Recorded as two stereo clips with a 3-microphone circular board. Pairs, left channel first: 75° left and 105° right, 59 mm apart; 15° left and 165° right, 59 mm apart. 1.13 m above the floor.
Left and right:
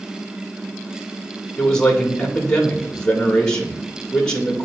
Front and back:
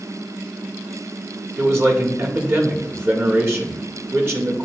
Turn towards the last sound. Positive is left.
turn(degrees=150)